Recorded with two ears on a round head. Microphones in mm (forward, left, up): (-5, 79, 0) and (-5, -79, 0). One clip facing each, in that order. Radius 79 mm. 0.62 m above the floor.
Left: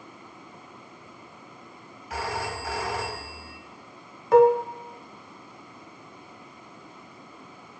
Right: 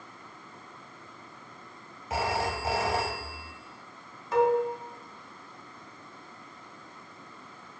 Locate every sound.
2.1 s a phone ringing: 20° right (ahead or behind), 1.8 m
4.3 s dishes clattering: 45° left (ahead or behind), 1.4 m